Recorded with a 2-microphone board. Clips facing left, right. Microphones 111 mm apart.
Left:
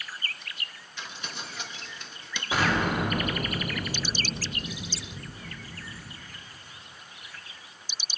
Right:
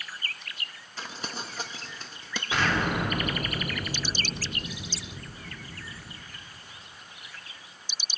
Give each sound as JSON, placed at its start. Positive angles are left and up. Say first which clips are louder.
{"t": 1.0, "sound": "crumpling", "louder": "right 3 dB", "side_deg": -40, "distance_m": 1.0}
{"t": 2.5, "sound": "an explosion", "louder": "left 1 dB", "side_deg": 10, "distance_m": 2.5}